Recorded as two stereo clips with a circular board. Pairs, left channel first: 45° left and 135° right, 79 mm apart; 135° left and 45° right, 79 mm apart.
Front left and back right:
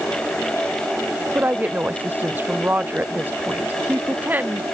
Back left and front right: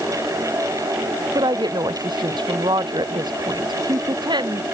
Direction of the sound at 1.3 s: 70° right.